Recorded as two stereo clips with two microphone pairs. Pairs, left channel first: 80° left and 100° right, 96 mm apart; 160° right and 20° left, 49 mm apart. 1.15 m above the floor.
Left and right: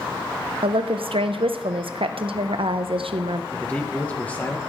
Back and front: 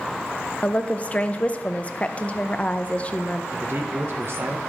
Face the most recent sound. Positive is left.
turn(degrees=5)